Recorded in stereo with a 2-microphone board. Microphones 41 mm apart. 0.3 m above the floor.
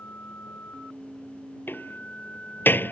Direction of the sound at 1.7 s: 55° left (ahead or behind).